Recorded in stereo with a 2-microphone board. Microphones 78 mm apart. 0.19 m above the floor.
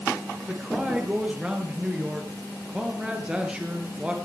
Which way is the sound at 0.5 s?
10° right (ahead or behind).